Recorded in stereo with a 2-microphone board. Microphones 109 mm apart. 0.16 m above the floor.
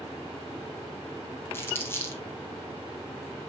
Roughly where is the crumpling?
Left.